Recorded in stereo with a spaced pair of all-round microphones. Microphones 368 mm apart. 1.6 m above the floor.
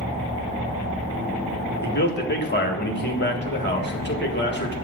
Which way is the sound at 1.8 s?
30° left (ahead or behind).